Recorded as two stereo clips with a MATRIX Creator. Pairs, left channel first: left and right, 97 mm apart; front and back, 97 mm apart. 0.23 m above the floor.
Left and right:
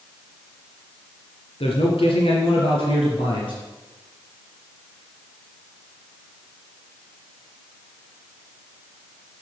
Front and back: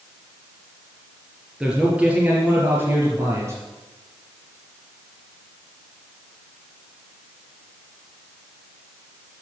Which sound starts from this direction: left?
A man speaking, at 1.6 s.